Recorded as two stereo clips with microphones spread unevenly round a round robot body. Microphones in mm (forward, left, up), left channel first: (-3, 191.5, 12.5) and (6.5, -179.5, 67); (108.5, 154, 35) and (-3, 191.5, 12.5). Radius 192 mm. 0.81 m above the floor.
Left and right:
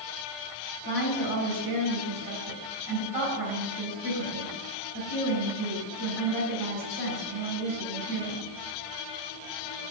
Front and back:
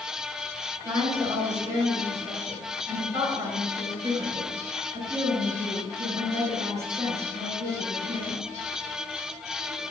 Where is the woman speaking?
125° right, 7 m.